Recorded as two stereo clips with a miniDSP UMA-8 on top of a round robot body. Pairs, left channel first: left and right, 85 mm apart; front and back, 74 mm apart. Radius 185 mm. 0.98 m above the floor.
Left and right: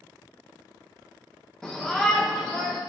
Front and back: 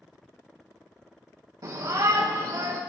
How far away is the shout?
About 1.5 m.